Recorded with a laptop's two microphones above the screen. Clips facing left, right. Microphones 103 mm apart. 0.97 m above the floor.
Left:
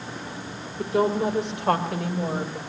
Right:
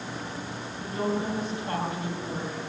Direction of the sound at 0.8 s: 80° left.